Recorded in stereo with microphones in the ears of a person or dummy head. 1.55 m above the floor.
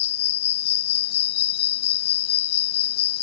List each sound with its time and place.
0.0 s an insect: 40° left (ahead or behind)